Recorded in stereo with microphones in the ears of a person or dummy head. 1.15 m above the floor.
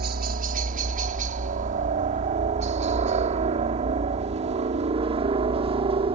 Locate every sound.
0.0 s a helicopter: 45° right (ahead or behind); by 6.2 s 30° right (ahead or behind)